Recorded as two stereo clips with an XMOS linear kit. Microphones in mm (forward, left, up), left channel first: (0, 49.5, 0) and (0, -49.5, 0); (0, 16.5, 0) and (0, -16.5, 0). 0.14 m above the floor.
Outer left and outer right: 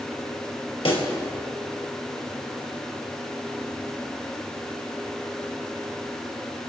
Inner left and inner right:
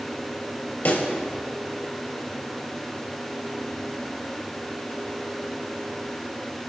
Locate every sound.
0.8 s a pop: 65° left (ahead or behind), 2.5 m